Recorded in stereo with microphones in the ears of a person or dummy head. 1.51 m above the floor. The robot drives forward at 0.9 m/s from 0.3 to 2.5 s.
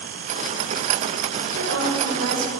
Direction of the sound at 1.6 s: 85° right.